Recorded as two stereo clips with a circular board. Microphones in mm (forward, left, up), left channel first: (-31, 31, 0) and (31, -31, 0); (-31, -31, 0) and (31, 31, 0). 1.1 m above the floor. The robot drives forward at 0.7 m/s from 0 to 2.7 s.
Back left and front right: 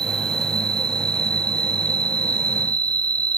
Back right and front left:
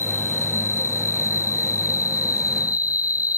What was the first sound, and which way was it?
An insect, 75° right.